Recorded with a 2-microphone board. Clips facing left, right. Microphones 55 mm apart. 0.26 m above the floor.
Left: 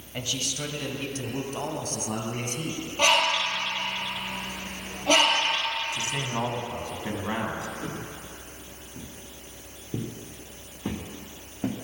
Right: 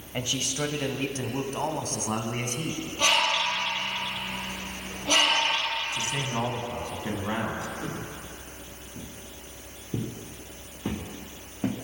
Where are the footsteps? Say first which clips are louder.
Even; 15° left (ahead or behind), 3 m; by 11.7 s 30° right (ahead or behind), 3 m.